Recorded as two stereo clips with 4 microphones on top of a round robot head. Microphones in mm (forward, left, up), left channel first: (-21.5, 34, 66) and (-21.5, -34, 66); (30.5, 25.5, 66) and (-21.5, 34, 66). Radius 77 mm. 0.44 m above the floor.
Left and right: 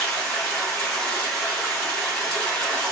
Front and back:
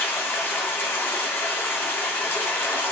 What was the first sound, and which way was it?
Running water, 15° left.